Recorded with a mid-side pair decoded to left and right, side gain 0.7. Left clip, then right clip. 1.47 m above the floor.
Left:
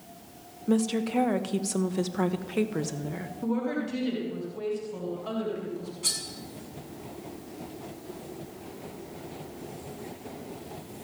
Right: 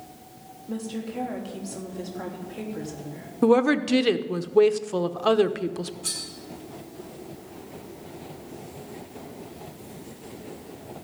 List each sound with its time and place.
0.7 s a woman speaking: 70° left, 1.4 m
3.4 s a woman speaking: 55° right, 0.9 m
6.0 s cutlery clinking: 50° left, 7 m